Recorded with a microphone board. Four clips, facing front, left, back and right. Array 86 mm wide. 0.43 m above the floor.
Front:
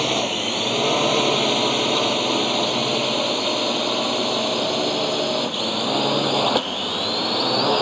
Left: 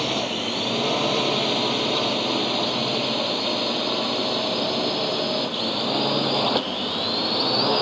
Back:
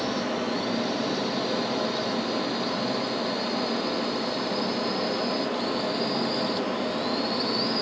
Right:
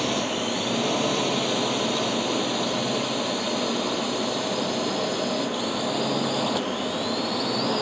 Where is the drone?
5° left; by 7.8 s 15° left.